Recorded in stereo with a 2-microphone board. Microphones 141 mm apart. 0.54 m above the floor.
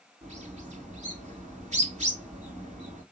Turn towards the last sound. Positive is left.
turn(degrees=-55)  # may be behind; listen again after turning